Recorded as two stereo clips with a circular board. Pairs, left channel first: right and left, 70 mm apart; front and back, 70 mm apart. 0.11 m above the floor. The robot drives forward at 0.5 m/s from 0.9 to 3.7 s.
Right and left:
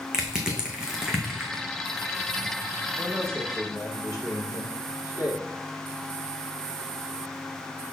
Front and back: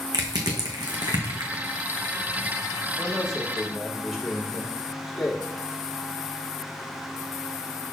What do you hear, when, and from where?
0.1 s crushing: 170° left, 1.7 m
3.0 s a man speaking: 90° right, 3.5 m; by 5.5 s 95° right, 3.5 m